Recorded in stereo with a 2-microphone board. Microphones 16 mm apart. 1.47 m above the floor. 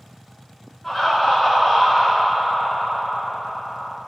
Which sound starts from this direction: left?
Laughter, at 0.8 s.